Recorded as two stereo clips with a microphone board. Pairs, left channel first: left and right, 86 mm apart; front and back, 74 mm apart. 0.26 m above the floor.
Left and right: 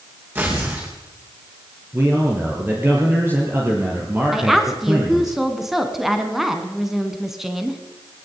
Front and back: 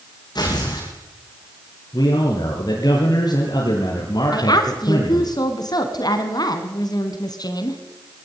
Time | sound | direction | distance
0.3 | tearing paper | 25° right | 9 m
1.9 | a man speaking | 25° right | 5 m
4.3 | a woman speaking | 5° right | 3 m